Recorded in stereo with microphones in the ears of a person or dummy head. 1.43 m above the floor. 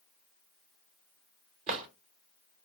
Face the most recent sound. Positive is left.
turn(degrees=-30)  # may be behind; listen again after turning